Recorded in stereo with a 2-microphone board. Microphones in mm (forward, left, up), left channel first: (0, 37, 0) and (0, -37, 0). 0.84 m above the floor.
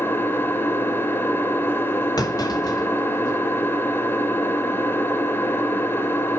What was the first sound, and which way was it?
An engine running, 30° left (ahead or behind).